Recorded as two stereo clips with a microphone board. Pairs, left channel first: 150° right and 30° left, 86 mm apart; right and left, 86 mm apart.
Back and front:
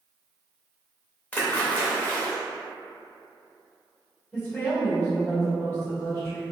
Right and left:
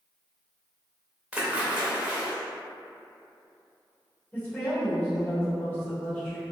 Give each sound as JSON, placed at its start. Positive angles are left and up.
{"t": 1.3, "sound": "a splash", "azimuth_deg": 155, "distance_m": 0.6}
{"t": 4.3, "sound": "a woman speaking", "azimuth_deg": -125, "distance_m": 1.4}